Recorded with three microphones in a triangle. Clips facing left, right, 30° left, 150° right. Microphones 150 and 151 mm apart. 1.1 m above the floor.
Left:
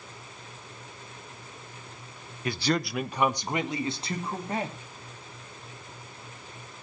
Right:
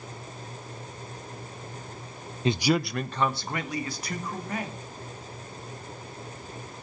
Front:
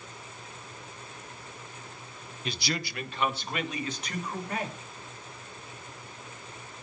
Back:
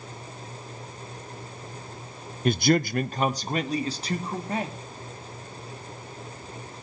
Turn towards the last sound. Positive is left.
turn(degrees=150)